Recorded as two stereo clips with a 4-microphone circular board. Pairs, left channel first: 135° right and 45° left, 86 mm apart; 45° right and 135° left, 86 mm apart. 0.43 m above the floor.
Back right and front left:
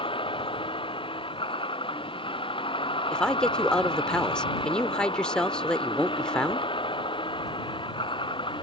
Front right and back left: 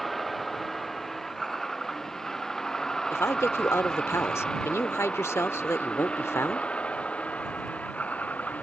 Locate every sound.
0.0 s a vehicle: 135° right; by 8.6 s 120° right
3.1 s a woman speaking: 65° right